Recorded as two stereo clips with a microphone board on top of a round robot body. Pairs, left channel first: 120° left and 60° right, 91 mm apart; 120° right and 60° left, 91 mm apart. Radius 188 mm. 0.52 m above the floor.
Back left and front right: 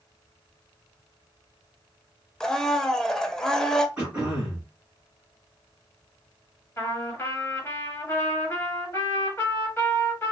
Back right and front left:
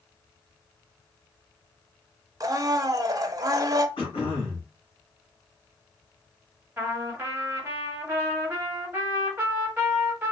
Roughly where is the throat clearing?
Behind right.